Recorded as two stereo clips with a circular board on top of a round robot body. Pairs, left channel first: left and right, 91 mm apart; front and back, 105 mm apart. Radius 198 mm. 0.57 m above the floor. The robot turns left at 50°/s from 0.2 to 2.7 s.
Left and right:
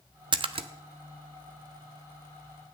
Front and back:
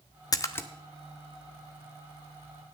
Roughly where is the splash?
Ahead right.